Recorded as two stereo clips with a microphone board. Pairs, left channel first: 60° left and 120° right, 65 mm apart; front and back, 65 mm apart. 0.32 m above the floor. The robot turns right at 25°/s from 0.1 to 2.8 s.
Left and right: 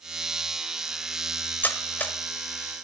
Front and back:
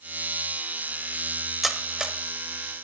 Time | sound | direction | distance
1.6 | cutlery clinking | 95° left | 0.6 m